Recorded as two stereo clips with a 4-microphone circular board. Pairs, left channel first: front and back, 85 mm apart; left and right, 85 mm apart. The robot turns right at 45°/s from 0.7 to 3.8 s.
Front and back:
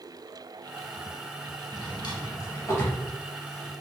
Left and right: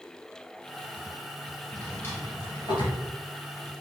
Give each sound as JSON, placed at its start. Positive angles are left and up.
{"t": 1.7, "sound": "a drawer", "azimuth_deg": 10, "distance_m": 1.8}